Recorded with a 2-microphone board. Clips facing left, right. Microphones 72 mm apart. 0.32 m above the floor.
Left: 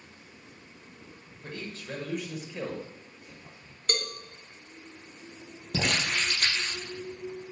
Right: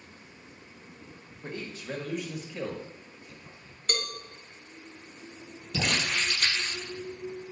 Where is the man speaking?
25° right (ahead or behind), 1.4 m; by 3.8 s 30° left (ahead or behind), 1.7 m.